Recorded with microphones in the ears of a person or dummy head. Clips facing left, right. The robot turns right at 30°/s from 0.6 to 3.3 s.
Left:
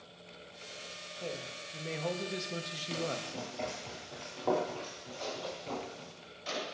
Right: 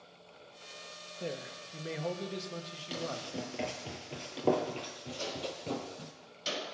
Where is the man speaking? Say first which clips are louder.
Right 2 dB; 25° right, 1.4 m; by 3.3 s 35° left, 1.4 m.